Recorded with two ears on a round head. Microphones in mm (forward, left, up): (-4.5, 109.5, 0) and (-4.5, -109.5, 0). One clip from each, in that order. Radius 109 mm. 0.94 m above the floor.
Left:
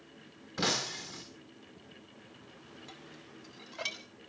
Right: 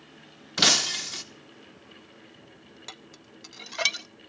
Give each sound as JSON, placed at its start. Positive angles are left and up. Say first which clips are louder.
{"t": 0.6, "sound": "breaking glass", "louder": "right 11 dB", "side_deg": -80, "distance_m": 1.5}
{"t": 2.9, "sound": "dishes clattering", "louder": "right 5 dB", "side_deg": -55, "distance_m": 0.7}